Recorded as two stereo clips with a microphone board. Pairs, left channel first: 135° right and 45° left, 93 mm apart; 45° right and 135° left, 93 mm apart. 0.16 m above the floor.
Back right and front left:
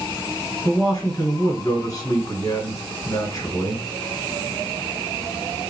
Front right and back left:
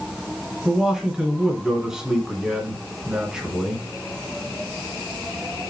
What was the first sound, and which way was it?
A man speaking, 145° right.